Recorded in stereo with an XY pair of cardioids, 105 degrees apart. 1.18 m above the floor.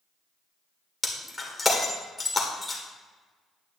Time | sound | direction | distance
1.0 | breaking glass | 15° left | 1.8 m